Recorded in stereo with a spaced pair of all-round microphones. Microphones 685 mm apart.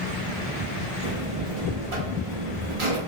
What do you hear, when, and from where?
1.0 s a buzzer: 45° right (ahead or behind), 0.9 m